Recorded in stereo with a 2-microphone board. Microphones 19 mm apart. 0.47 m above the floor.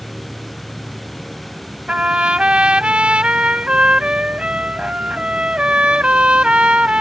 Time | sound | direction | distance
0.0 | an insect | 75° left (ahead or behind) | ?
1.9 | a trumpet | 60° right (ahead or behind) | ?